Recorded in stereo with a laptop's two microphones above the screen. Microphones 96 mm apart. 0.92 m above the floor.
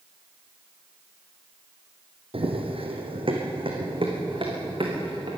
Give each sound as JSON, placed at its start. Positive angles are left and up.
{"t": 2.3, "sound": "running footsteps", "side_deg": -70, "distance_m": 3.0}